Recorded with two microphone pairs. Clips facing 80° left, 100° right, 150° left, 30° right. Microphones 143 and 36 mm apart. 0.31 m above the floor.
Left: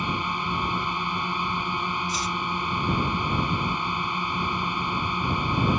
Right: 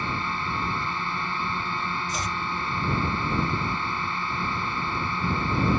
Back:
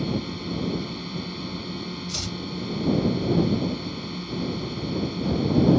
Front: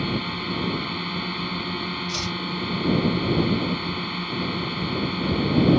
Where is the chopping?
115° right.